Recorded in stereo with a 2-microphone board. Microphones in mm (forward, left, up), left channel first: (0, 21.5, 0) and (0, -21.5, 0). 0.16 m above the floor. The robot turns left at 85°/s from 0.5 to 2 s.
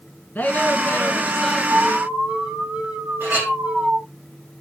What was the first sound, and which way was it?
A woman speaking, 95° left.